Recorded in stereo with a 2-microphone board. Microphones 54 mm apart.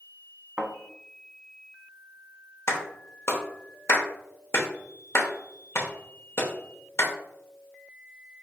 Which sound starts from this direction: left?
A clap, at 2.7 s.